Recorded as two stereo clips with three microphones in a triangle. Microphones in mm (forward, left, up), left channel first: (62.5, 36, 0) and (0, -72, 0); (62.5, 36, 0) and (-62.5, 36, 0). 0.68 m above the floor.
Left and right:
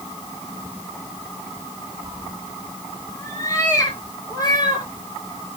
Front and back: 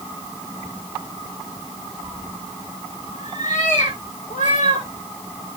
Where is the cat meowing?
10° right, 8.5 m; by 4.9 s 5° left, 6.5 m.